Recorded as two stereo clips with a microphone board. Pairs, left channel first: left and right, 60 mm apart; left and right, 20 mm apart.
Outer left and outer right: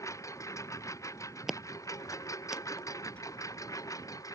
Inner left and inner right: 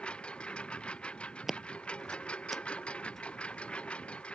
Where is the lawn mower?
60° left (ahead or behind); by 4.3 s 70° left (ahead or behind).